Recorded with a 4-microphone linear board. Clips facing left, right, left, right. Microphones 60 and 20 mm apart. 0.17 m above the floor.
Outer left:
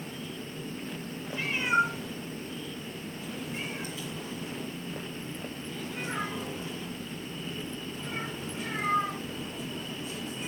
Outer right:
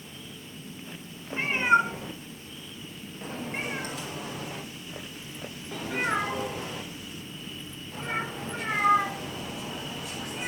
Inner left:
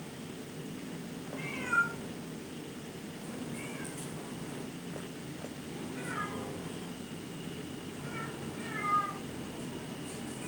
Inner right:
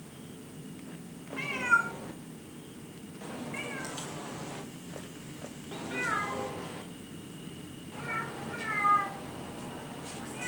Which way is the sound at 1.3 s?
35° right (ahead or behind).